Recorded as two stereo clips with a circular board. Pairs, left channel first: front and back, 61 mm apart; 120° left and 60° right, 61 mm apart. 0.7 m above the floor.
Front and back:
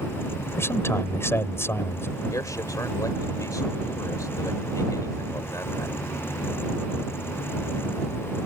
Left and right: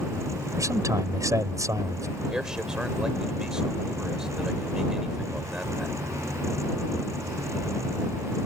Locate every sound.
0.6 s a man speaking: 40° right
2.3 s a man speaking: 20° left